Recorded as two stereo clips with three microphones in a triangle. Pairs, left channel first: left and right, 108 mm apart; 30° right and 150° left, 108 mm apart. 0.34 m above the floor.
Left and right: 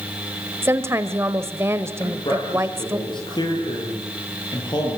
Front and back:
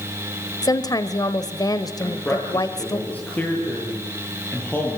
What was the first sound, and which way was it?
A woman speaking, 40° right.